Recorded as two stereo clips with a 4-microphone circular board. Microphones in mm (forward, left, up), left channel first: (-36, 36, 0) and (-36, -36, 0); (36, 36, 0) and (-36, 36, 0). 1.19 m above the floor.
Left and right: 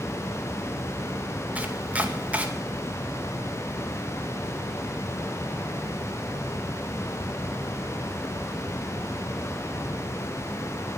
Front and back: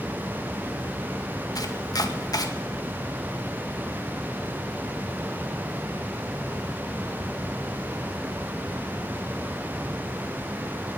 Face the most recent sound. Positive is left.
turn(degrees=-20)